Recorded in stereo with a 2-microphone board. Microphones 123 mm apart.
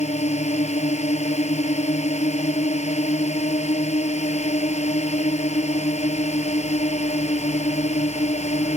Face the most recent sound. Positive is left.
turn(degrees=65)  # may be behind; listen again after turning